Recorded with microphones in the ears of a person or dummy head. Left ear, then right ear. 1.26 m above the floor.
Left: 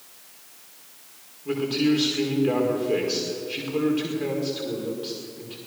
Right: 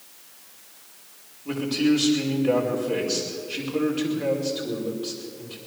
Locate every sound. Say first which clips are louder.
1.4 s a man speaking: even; 5° left (ahead or behind), 5 m